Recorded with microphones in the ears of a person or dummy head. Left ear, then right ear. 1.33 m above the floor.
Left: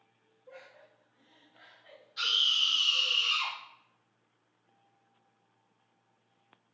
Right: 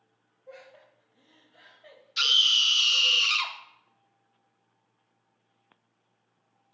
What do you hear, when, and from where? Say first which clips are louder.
0.5 s laughter: right 3 dB; 70° right (ahead or behind), 1.1 m; by 3.2 s 15° right (ahead or behind), 1.0 m
2.2 s a scream: right 6 dB; 70° right (ahead or behind), 0.8 m